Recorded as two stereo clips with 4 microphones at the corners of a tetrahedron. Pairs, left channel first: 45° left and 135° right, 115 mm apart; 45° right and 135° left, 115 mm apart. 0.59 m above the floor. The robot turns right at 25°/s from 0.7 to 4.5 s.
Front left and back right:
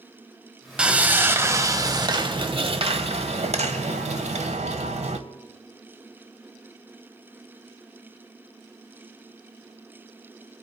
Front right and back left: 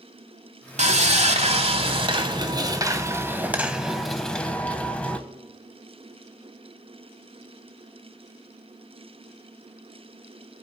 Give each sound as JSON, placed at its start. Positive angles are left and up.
{"t": 0.8, "sound": "sawing", "azimuth_deg": 145, "distance_m": 1.0}